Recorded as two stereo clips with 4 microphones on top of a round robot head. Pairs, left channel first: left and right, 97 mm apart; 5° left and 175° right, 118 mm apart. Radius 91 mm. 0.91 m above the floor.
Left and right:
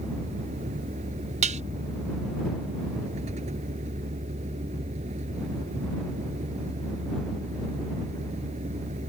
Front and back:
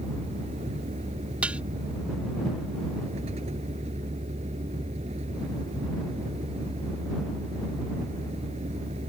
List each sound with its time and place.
0.0 s a vehicle: 125° right
1.4 s dishes clattering: 95° right